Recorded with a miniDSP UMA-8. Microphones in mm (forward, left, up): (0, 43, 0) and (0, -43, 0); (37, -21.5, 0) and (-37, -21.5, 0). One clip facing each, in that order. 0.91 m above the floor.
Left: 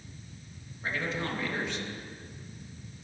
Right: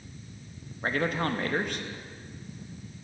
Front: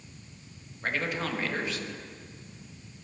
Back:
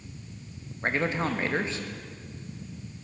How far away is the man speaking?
About 0.8 m.